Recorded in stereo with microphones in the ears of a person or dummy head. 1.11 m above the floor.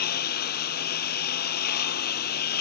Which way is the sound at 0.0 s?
55° left (ahead or behind).